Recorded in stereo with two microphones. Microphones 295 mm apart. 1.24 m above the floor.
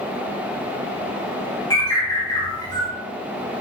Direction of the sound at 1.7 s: 15° left (ahead or behind).